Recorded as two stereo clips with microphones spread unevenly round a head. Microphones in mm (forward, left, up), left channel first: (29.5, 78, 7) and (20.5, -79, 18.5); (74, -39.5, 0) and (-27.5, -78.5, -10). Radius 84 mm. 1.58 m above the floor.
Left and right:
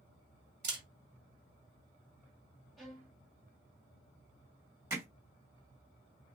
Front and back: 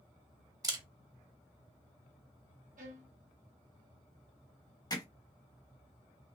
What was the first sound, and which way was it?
A camera shutter, 110° right.